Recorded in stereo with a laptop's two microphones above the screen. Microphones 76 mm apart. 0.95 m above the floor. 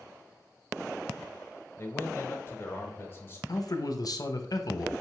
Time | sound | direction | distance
1.8 | a man speaking | 30° left (ahead or behind) | 0.8 m
3.5 | a man speaking | 55° left (ahead or behind) | 0.6 m